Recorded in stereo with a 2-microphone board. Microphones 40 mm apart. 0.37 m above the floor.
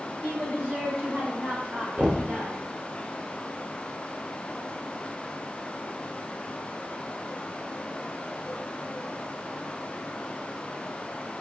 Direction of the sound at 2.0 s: 15° right (ahead or behind).